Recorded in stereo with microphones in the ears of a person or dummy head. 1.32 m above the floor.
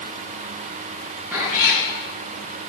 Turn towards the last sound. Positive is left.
turn(degrees=-10)  # may be behind; listen again after turning